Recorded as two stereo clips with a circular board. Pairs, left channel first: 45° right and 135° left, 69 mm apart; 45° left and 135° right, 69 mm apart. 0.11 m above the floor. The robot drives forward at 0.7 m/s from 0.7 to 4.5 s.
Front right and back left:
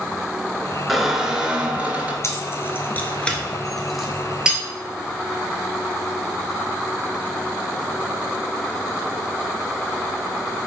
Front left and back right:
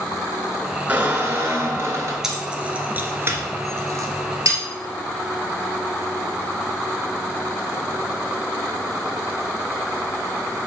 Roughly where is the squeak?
Behind right.